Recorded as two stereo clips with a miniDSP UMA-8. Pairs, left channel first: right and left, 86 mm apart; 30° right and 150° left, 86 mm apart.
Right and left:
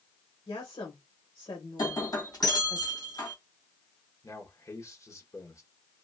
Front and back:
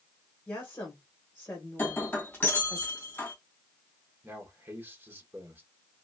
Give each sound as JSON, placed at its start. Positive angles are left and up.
{"t": 0.5, "sound": "a woman speaking", "azimuth_deg": -95, "distance_m": 1.5}
{"t": 1.8, "sound": "breaking glass", "azimuth_deg": -90, "distance_m": 2.0}
{"t": 4.2, "sound": "a man speaking", "azimuth_deg": -145, "distance_m": 1.5}